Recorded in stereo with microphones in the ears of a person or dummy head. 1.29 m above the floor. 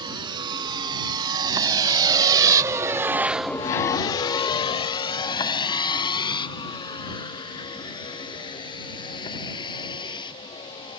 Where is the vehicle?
25° right (ahead or behind); by 11.0 s 30° left (ahead or behind).